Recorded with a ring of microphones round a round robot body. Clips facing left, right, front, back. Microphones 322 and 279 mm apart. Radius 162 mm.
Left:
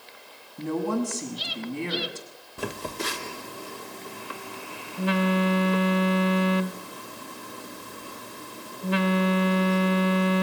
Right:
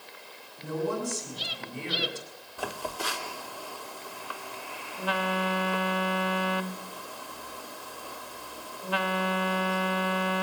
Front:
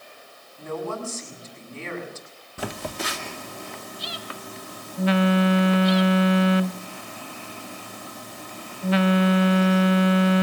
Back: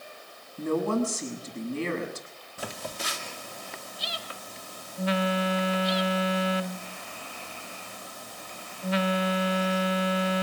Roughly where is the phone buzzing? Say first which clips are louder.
Left 4 dB, front 6 dB; ahead left.